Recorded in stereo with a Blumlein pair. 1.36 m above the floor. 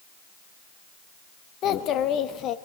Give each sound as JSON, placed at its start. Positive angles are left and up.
{"t": 1.6, "sound": "a child speaking", "azimuth_deg": 30, "distance_m": 1.4}